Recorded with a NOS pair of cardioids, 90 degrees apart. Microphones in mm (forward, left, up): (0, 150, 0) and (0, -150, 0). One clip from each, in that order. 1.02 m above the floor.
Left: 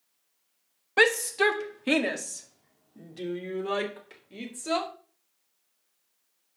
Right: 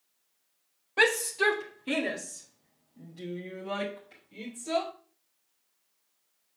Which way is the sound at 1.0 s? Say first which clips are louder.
Left 3 dB; 40° left.